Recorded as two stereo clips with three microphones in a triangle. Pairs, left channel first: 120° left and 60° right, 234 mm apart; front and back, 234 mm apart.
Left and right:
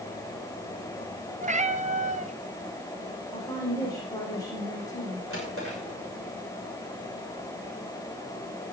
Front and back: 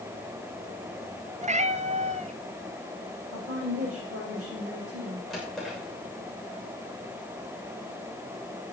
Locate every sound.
1.4 s a cat meowing: 115° right, 0.8 m
3.3 s a woman speaking: 165° right, 8 m
5.3 s a drawer: 90° left, 7 m